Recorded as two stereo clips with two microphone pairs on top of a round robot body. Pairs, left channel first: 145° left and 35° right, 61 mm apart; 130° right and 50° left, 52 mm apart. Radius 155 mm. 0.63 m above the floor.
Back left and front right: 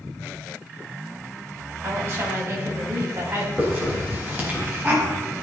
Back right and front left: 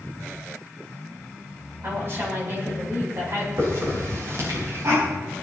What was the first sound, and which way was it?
A woman speaking, 10° left.